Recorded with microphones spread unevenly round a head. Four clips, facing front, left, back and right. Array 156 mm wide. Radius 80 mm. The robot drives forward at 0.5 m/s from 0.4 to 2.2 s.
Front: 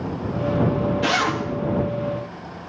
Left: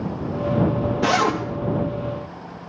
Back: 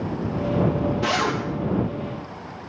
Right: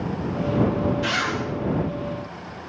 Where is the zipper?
95° left, 1.7 m; by 1.4 s 100° left, 1.7 m.